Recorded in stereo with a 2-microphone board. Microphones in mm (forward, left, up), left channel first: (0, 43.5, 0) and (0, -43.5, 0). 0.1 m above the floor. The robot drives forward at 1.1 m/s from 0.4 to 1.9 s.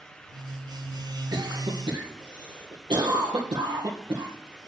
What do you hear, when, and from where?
1.3 s a cough: 60° right (ahead or behind), 2.5 m